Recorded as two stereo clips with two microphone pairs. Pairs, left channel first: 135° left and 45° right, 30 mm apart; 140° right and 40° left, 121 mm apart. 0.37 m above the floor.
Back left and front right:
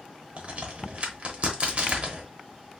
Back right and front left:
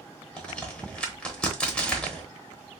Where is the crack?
65° right, 0.9 m.